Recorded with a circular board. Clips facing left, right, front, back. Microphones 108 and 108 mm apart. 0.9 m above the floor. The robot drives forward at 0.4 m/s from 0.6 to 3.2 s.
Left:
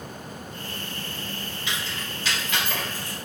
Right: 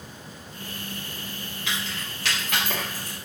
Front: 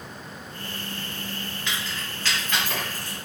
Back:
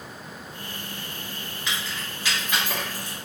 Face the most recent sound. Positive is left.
turn(degrees=-110)